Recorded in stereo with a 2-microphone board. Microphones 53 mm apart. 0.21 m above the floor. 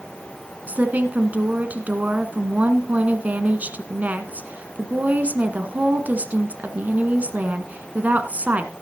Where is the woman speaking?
30° right (ahead or behind), 1.8 m.